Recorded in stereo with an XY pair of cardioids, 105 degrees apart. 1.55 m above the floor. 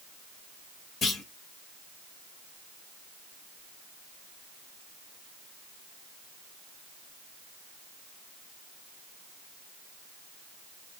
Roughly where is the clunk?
Ahead left.